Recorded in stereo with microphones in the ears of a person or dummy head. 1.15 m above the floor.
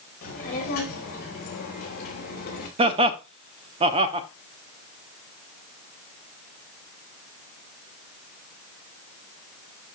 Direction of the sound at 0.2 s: 45° left (ahead or behind).